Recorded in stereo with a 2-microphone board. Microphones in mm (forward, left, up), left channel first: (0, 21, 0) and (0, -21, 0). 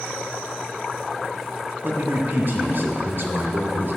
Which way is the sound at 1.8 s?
45° right (ahead or behind).